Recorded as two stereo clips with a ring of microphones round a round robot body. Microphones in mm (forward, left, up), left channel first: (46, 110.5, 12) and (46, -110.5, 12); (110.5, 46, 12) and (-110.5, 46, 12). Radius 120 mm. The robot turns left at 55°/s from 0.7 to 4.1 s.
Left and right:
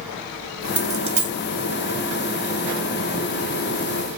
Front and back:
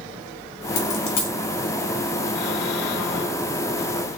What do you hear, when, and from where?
0.8 s a dropped coin: 5° right, 0.9 m; by 1.4 s 40° right, 0.9 m